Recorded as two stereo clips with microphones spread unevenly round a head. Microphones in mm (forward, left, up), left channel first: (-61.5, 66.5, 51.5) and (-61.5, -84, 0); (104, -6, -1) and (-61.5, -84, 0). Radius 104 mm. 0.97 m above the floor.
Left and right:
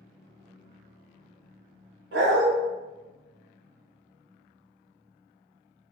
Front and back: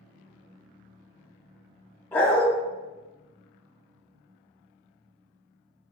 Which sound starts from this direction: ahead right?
A dog barking, at 2.1 s.